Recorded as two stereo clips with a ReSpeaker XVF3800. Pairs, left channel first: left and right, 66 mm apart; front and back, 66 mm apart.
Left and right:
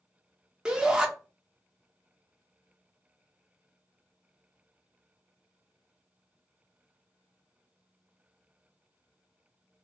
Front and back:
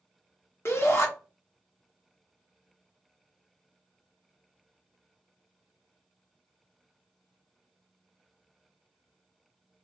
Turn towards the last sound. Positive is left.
turn(degrees=-20)